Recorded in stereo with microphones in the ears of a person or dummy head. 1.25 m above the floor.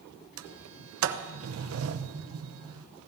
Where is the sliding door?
65° right (ahead or behind), 0.8 m.